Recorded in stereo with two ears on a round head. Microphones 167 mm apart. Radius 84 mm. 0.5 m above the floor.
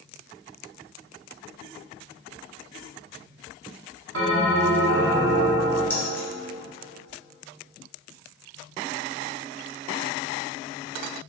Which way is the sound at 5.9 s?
10° left (ahead or behind).